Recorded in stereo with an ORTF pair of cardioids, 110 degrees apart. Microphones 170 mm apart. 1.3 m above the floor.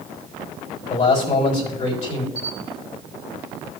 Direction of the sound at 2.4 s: 40° left.